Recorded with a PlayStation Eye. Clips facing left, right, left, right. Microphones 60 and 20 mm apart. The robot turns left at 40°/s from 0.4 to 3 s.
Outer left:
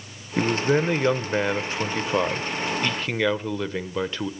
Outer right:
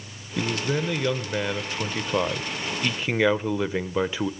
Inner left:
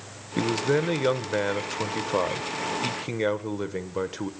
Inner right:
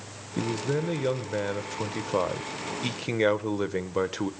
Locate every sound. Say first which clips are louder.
0.4 s a man speaking: outer left 5 dB, inner left 5 dB; 85° left, 1.0 m; by 4.3 s 20° right, 1.0 m